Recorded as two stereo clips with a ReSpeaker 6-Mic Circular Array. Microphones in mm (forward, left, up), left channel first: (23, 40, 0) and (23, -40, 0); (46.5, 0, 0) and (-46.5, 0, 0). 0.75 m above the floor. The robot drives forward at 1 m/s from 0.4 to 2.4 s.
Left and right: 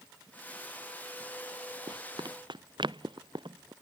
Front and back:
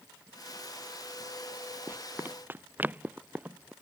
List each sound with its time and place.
1.9 s running footsteps: 110° right; by 3.7 s 105° right